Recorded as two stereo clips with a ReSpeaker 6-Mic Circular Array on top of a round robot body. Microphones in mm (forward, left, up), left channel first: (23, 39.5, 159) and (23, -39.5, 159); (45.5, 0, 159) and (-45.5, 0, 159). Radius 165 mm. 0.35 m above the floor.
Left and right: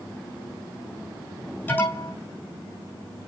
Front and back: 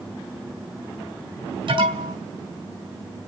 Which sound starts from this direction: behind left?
An alarm, at 1.7 s.